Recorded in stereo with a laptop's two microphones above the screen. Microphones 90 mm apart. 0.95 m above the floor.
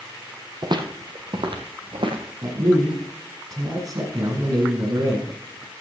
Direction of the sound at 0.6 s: 50° right (ahead or behind).